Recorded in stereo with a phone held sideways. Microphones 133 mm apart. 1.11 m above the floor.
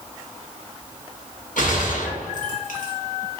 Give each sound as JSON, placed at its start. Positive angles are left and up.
{"t": 1.6, "sound": "a gunshot", "side_deg": 80, "distance_m": 1.1}